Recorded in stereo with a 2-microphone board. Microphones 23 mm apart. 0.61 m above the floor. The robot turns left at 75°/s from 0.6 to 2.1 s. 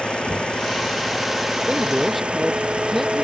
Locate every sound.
0.0 s an engine running: 55° left; by 3.2 s 60° right
1.6 s a man speaking: 140° right; by 3.2 s 175° right